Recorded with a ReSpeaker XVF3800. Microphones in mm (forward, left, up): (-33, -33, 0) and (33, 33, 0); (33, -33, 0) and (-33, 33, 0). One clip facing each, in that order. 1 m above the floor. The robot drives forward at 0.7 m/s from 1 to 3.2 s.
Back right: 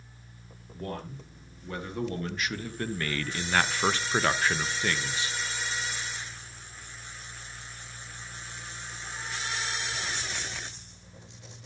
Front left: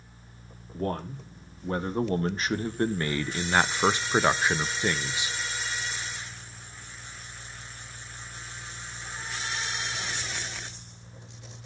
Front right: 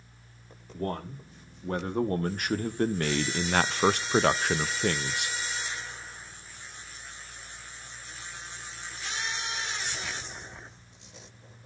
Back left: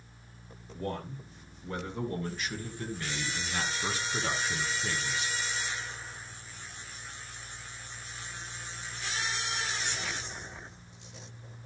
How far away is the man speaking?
About 1.9 m.